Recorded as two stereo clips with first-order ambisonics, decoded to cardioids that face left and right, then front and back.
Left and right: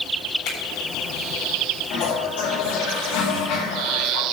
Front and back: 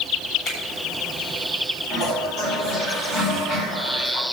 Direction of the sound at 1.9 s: 70° left.